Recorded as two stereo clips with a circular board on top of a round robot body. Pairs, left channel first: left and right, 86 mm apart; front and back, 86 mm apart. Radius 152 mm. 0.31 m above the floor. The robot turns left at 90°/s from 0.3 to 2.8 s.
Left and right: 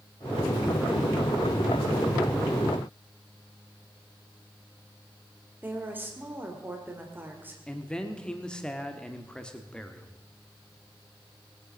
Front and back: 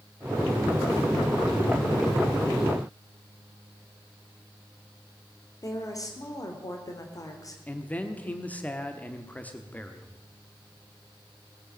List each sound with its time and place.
5.6 s a woman speaking: 30° right, 1.9 m
7.7 s a man speaking: 30° left, 1.4 m